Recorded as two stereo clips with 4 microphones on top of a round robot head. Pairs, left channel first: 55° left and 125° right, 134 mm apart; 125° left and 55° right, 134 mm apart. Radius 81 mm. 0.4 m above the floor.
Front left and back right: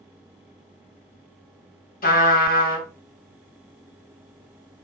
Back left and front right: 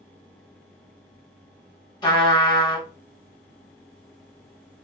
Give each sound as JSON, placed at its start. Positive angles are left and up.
{"t": 2.0, "sound": "a trumpet", "azimuth_deg": 70, "distance_m": 1.1}